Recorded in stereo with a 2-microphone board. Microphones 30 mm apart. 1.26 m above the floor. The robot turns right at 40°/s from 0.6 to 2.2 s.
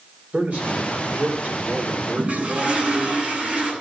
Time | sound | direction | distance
0.3 | a man speaking | 120° right | 4 m
2.2 | a toilet flushing | 40° right (ahead or behind) | 9 m